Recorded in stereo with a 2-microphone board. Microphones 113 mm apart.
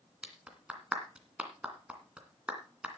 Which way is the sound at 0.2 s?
10° right (ahead or behind).